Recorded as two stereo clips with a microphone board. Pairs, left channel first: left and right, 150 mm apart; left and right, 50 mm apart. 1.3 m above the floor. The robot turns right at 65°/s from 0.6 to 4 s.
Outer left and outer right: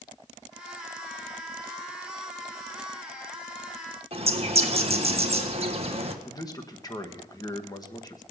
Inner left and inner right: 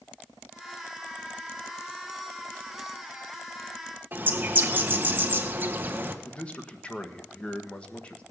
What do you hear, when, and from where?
4.1 s a bird: 45° right (ahead or behind), 1.3 m
6.2 s a man speaking: 25° left (ahead or behind), 1.5 m